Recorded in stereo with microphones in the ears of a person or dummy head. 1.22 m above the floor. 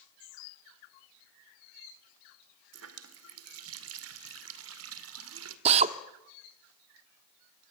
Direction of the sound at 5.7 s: 35° right (ahead or behind).